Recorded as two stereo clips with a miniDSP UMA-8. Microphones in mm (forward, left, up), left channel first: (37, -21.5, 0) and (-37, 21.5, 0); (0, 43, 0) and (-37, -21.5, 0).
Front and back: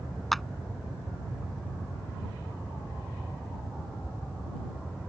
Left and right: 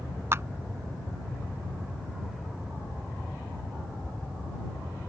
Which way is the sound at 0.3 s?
115° right.